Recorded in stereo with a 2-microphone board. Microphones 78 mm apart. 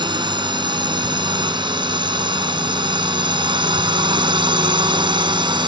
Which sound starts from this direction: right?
A drone, at 0.0 s.